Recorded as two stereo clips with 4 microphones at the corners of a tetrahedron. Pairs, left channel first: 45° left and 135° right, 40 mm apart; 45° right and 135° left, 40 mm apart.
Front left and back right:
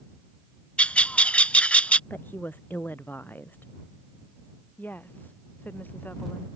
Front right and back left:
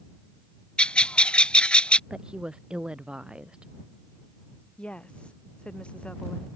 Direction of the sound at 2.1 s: 70° left.